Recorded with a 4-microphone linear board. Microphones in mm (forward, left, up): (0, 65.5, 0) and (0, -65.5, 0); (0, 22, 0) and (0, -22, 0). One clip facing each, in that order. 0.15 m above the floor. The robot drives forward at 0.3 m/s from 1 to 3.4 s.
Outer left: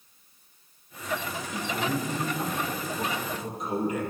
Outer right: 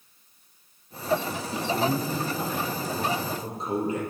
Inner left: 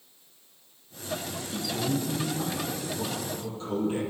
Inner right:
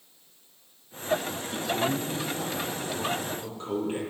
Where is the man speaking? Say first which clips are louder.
Outer right 4 dB, inner right 2 dB; 35° right (ahead or behind), 5 m.